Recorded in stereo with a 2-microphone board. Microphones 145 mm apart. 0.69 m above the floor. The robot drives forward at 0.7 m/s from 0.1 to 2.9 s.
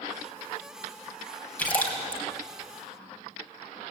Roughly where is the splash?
Centre.